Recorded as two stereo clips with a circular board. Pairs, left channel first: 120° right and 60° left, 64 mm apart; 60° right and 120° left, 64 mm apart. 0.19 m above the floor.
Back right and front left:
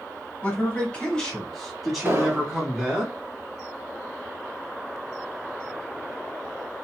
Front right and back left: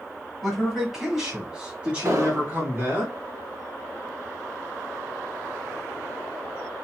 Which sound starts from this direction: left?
An explosion, at 2.0 s.